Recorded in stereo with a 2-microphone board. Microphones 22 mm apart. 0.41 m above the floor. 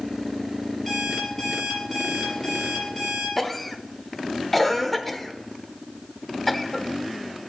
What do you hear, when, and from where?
0.9 s an alarm clock: 5° left (ahead or behind), 5.5 m
3.4 s a cough: 5° left (ahead or behind), 0.9 m